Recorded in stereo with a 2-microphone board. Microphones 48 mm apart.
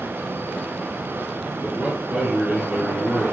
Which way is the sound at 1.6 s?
5° right (ahead or behind).